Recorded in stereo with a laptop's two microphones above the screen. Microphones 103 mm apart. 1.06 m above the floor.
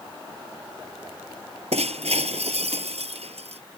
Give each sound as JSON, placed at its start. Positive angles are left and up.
{"t": 1.7, "sound": "breaking glass", "side_deg": -85}